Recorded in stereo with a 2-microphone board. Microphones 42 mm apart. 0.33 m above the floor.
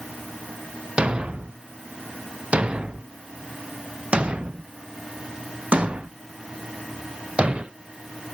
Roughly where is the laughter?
I don't hear laughter.